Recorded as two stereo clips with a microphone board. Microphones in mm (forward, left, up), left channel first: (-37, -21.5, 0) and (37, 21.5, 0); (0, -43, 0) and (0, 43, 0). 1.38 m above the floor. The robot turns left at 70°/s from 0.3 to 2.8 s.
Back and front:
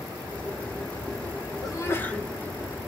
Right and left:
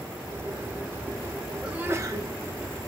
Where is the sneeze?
170° left, 1.0 m; by 2.3 s 125° left, 1.0 m.